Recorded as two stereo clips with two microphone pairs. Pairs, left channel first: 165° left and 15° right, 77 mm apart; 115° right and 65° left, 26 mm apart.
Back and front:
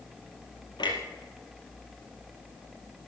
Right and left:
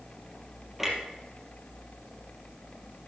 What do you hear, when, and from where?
0.8 s a clunk: 150° left, 3 m